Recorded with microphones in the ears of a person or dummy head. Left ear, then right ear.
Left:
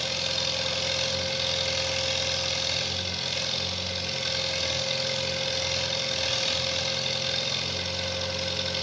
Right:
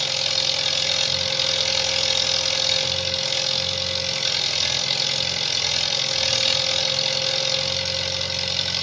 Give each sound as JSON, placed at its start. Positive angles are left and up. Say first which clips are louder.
{"t": 0.0, "sound": "an engine running", "louder": "right 6 dB", "side_deg": -25, "distance_m": 5.5}